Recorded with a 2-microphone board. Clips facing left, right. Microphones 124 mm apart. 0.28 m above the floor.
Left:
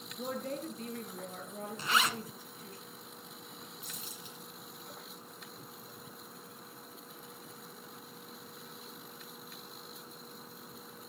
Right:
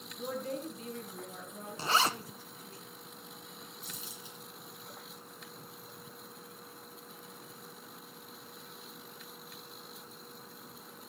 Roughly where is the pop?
No pop in this recording.